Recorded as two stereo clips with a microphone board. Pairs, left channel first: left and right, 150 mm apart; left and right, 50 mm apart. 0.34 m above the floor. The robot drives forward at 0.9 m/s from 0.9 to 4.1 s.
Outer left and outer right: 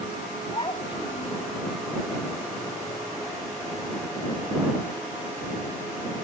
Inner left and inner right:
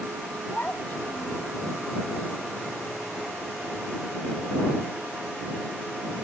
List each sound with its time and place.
0.5 s a child speaking: 35° left (ahead or behind); by 1.5 s 45° left (ahead or behind)